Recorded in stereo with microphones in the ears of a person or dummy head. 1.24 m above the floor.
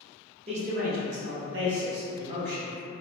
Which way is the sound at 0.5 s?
35° right (ahead or behind).